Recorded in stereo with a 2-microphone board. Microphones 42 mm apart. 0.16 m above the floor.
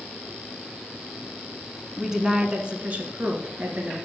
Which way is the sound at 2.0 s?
10° right (ahead or behind).